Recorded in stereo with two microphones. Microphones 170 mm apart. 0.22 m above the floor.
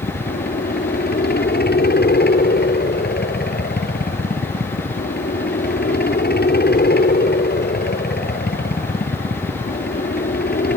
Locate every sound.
0.0 s a helicopter: 70° left (ahead or behind)